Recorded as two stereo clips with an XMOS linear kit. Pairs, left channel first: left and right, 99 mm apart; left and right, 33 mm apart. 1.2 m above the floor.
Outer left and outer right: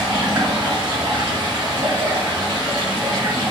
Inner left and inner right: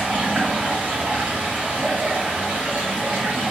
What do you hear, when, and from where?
0.0 s running water: 50° right (ahead or behind), 1.7 m